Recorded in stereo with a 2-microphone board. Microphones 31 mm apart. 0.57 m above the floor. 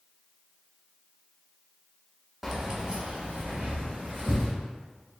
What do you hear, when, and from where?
2.4 s keys jangling: centre (ahead or behind), 0.6 m; by 4.5 s 70° right (ahead or behind), 1.4 m